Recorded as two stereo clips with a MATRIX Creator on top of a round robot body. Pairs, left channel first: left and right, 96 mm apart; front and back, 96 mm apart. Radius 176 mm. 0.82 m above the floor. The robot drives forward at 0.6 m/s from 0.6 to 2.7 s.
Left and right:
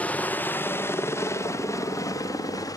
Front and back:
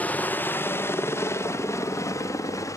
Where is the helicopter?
45° left; by 2.8 s 50° left.